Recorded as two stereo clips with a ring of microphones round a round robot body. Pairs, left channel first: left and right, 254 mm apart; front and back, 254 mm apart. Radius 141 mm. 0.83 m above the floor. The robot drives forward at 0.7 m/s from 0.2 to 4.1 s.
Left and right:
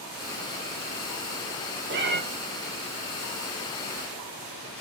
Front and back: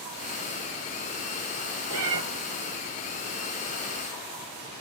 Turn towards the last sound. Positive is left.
turn(degrees=-160)